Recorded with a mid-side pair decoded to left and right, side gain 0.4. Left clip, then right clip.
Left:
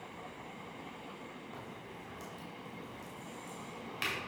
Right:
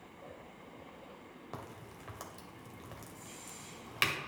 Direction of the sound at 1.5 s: 65° right.